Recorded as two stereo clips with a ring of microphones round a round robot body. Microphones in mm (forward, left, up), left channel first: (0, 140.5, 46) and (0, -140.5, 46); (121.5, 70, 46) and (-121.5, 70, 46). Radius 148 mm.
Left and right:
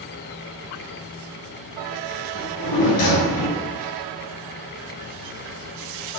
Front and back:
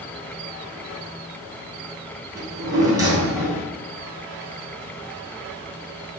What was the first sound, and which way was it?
A drawer, 105° left.